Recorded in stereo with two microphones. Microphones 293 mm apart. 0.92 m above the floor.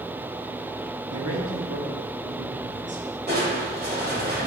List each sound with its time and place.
1.1 s a man speaking: 55° right (ahead or behind), 1.1 m; by 3.0 s 35° right (ahead or behind), 2.5 m
3.3 s crushing: 35° right (ahead or behind), 2.5 m